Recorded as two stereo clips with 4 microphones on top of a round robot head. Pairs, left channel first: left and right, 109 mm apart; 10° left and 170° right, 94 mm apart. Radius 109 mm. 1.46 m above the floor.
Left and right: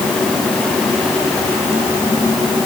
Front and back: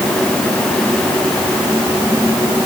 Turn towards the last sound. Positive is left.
No sound to turn to.